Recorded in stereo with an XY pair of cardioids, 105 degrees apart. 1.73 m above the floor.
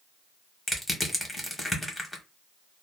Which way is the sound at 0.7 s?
15° left.